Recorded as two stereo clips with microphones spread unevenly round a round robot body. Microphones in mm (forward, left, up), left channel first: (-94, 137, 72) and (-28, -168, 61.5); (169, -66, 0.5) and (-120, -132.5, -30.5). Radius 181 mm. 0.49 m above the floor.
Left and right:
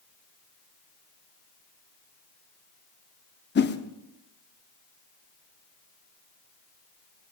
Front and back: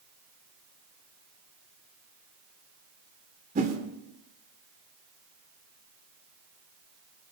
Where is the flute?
I don't hear a flute.